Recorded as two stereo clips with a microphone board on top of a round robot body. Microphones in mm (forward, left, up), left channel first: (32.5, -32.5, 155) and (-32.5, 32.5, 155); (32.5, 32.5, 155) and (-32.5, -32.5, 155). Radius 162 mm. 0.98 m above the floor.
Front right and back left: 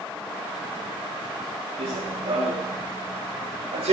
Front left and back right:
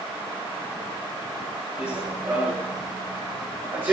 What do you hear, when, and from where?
1.8 s running footsteps: 155° left, 7 m